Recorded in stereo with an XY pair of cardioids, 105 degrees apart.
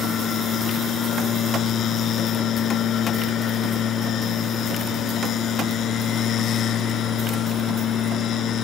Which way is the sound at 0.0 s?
65° left.